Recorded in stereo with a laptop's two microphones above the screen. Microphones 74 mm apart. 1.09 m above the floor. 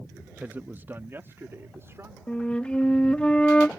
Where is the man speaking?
25° right (ahead or behind); by 2.2 s 35° right (ahead or behind).